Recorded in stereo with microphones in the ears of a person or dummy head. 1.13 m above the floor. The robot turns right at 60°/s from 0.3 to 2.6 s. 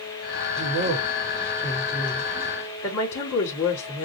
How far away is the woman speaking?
About 2.5 m.